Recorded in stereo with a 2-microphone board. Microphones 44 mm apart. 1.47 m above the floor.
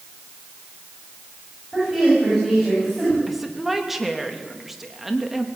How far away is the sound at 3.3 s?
About 2.5 m.